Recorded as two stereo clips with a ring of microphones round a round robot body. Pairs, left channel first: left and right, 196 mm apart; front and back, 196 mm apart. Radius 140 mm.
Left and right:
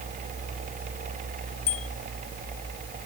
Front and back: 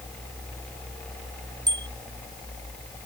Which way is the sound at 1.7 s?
115° left.